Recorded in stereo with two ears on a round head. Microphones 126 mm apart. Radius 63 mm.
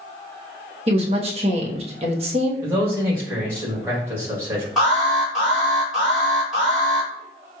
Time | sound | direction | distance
0.9 | a woman speaking | 45° right (ahead or behind) | 1.0 m
2.6 | a man speaking | 20° right (ahead or behind) | 2 m
4.8 | an alarm | centre (ahead or behind) | 2.5 m